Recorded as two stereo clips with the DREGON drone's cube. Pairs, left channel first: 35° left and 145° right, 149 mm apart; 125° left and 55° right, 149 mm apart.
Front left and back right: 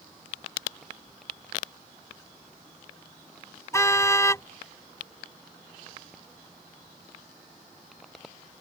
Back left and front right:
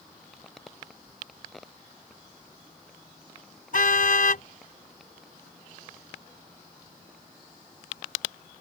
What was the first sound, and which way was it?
A car horn, 105° left.